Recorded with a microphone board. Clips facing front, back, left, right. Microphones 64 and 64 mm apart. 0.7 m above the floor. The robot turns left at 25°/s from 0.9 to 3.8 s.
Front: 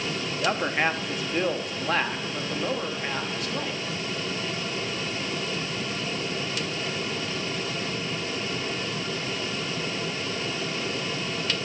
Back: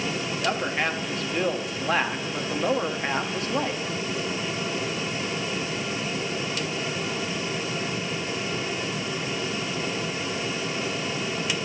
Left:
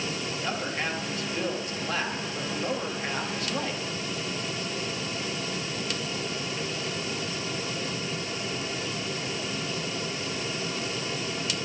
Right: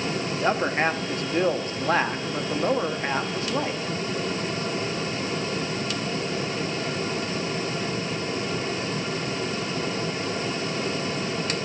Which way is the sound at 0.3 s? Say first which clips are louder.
Front 2 dB, right 11 dB; 75° right.